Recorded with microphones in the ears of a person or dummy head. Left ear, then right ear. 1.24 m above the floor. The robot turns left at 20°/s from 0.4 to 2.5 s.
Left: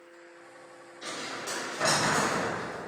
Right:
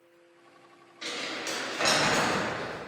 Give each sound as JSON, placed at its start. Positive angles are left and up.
{"t": 1.0, "sound": "crumpling", "side_deg": -25, "distance_m": 0.8}